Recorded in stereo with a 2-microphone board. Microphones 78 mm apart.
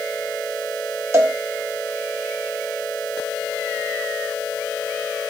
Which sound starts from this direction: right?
A cowbell, at 1.1 s.